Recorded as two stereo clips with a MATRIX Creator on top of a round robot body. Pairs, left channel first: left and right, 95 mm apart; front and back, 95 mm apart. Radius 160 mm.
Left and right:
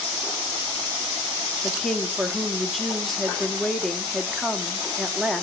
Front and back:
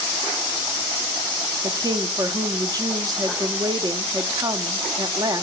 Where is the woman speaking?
Straight behind, 1.4 m.